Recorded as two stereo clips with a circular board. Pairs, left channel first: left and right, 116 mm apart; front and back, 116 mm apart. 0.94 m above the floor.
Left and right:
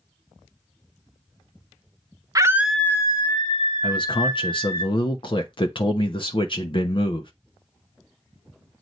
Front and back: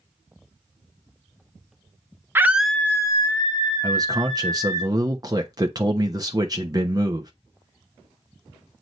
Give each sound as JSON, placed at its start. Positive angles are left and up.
{"t": 2.4, "sound": "a scream", "azimuth_deg": -125, "distance_m": 0.8}
{"t": 3.8, "sound": "a man speaking", "azimuth_deg": 125, "distance_m": 0.9}